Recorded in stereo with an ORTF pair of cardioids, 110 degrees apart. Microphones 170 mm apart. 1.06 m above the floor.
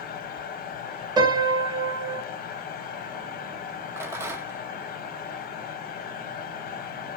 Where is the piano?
25° right, 0.9 m.